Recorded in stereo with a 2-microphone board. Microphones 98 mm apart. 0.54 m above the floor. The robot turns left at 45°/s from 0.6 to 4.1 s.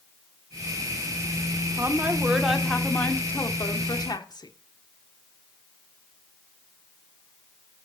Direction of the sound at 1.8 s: 145° right.